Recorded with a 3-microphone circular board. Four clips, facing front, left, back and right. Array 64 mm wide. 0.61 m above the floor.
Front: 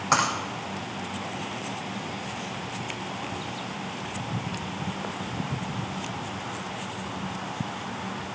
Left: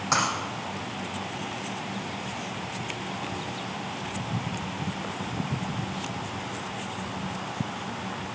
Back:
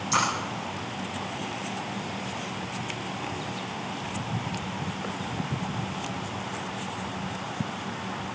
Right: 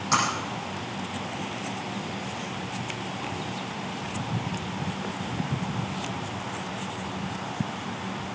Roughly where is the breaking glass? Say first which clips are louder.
Right 1 dB, front 2 dB; ahead.